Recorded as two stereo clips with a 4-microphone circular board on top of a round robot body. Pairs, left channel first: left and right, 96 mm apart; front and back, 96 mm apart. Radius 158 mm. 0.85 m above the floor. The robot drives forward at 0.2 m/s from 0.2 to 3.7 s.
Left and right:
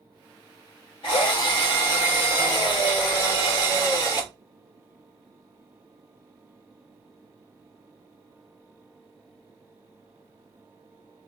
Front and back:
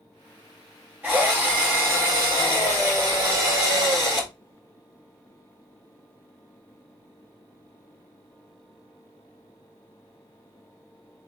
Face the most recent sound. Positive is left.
turn(degrees=130)